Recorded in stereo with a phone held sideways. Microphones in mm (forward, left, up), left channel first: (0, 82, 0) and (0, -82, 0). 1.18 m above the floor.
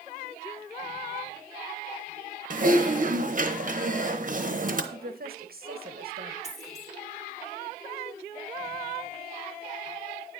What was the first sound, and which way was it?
Typing on a keyboard, 50° right (ahead or behind).